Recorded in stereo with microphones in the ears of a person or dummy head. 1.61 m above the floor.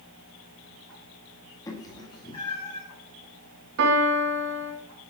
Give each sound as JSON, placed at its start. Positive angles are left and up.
{"t": 1.7, "sound": "a cat meowing", "side_deg": 20, "distance_m": 1.7}
{"t": 3.8, "sound": "a piano", "side_deg": -70, "distance_m": 1.9}